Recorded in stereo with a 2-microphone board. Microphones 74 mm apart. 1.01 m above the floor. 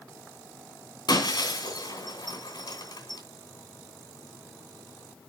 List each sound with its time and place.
1.1 s breaking glass: 70° left (ahead or behind), 2.5 m